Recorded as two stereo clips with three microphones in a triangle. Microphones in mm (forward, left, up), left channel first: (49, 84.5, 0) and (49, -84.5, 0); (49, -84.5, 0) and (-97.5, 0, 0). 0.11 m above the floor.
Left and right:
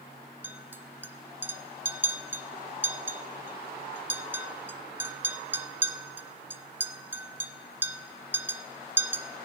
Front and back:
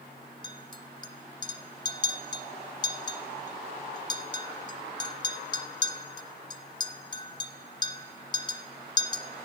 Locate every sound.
0.4 s a clink: 25° right, 0.7 m